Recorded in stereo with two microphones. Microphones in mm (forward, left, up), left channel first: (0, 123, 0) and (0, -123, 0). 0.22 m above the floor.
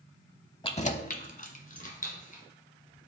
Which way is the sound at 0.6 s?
20° left (ahead or behind).